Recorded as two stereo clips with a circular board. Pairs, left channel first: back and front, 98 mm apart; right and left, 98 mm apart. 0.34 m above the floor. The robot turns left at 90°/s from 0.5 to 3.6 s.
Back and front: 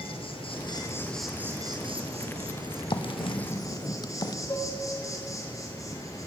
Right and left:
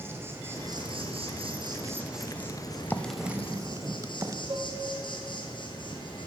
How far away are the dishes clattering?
About 1.5 m.